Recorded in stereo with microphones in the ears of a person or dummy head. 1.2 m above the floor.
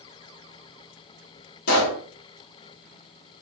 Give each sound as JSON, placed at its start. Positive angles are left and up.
{"t": 1.7, "sound": "a pop", "side_deg": 60, "distance_m": 1.3}